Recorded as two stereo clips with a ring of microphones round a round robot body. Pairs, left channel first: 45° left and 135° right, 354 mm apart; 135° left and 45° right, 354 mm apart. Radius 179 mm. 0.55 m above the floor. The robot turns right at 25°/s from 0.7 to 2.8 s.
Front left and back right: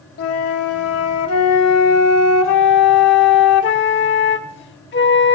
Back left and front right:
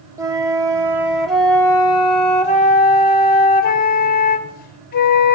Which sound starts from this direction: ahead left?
A flute, at 0.2 s.